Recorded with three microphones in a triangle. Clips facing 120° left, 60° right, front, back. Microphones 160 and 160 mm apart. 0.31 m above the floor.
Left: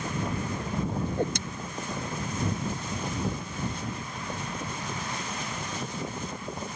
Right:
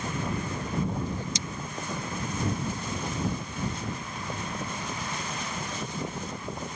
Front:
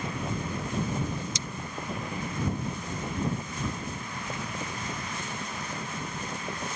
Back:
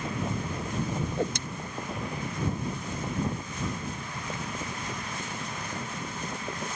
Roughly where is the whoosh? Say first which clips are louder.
Left 5 dB, back 5 dB; behind left.